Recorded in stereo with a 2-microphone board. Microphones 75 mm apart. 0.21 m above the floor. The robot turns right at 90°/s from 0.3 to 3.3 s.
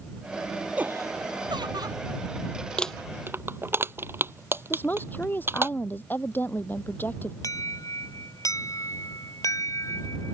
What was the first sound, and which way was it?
Laughter, 160° right.